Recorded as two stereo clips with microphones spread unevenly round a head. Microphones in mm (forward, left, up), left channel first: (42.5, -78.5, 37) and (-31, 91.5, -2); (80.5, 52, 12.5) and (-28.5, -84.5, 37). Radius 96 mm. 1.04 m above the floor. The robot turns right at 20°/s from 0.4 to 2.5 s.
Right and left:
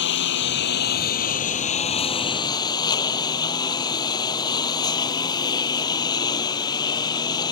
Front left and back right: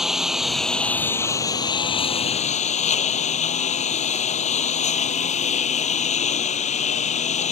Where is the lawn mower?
40° right; by 7.5 s straight ahead.